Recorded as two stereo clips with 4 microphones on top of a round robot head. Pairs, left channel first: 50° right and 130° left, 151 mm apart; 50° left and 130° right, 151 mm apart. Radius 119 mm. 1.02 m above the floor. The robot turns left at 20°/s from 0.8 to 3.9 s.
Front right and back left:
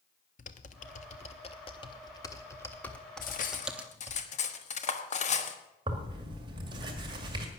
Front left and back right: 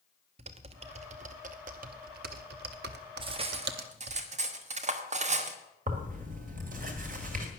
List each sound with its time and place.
0.4 s typing on a keyboard: 85° right, 0.6 m; by 4.2 s 150° right, 0.6 m
3.2 s cutlery clinking: 75° right, 1.3 m; by 5.6 s 90° right, 1.3 m
5.9 s tearing paper: 165° right, 1.9 m